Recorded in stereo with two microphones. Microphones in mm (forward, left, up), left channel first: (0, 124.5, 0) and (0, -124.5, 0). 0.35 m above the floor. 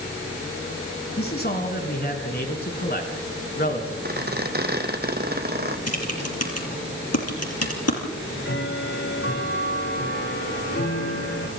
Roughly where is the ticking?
Left.